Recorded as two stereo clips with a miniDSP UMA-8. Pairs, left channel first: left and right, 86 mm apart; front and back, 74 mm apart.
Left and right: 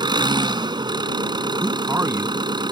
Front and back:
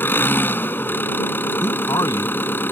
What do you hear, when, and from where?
0.0 s an engine running: 60° right
1.6 s a man speaking: 35° right